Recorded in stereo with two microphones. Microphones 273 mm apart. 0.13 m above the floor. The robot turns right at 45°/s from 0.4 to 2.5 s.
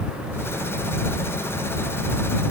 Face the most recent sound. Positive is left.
No sound to turn to.